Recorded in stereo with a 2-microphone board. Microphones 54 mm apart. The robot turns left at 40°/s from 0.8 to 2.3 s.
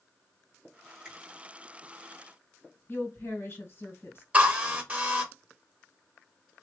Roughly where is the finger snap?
Centre.